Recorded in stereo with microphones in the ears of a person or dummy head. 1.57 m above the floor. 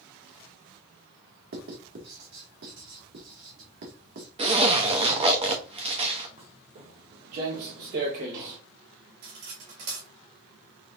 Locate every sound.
1.5 s writing: 50° right (ahead or behind), 1.7 m
4.4 s a zipper: 25° right (ahead or behind), 0.9 m
6.4 s footsteps: 35° right (ahead or behind), 2.5 m; by 8.6 s 40° right (ahead or behind), 2 m
9.2 s cutlery clinking: 75° right (ahead or behind), 2.5 m